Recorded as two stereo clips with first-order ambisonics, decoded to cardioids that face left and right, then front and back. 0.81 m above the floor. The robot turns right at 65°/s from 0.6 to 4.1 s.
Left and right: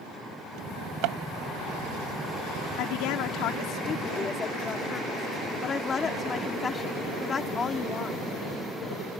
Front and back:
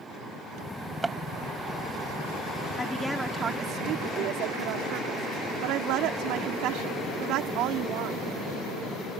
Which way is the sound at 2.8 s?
70° left.